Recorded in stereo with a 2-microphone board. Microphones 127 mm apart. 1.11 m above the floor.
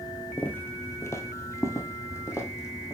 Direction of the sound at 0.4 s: 15° left (ahead or behind).